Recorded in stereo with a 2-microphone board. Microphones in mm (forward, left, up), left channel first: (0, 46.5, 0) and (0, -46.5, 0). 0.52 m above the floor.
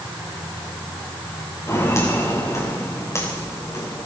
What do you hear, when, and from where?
1.7 s footsteps: 30° left (ahead or behind), 8.5 m; by 4.1 s 35° left (ahead or behind), 11.5 m